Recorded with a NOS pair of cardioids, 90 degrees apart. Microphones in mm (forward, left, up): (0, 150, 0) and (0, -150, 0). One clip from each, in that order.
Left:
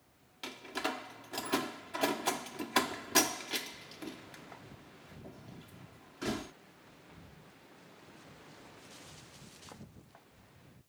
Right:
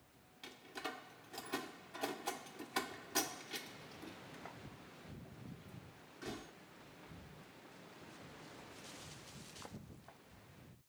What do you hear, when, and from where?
0.4 s a door slam: 65° left